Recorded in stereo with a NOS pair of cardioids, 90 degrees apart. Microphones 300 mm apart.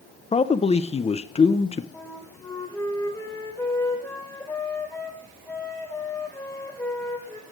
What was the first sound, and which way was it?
A man speaking, 20° left.